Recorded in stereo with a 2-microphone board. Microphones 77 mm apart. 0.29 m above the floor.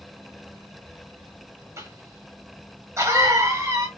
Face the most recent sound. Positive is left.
turn(degrees=-40)  # may be behind; listen again after turning